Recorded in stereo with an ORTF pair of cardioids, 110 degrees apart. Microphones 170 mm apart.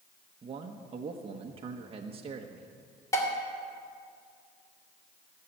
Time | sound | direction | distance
0.4 | a man speaking | 35° right | 1.1 m
3.1 | dishes clattering | 20° left | 2.5 m